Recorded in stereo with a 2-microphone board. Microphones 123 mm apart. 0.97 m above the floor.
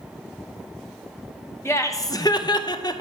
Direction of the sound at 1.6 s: 20° left (ahead or behind).